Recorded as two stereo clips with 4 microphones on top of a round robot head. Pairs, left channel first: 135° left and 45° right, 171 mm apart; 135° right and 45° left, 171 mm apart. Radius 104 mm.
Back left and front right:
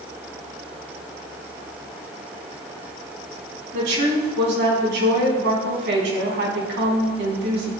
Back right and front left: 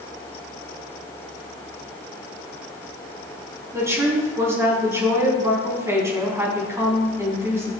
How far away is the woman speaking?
About 4.5 m.